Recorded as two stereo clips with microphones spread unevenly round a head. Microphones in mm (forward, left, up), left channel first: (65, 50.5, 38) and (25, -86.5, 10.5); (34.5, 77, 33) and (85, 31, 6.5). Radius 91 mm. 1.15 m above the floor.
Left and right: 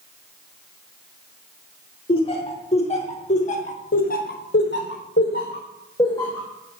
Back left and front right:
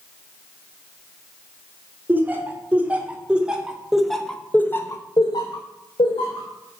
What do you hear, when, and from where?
2.1 s laughter: 25° left, 3 m; by 6.5 s 155° left, 1.7 m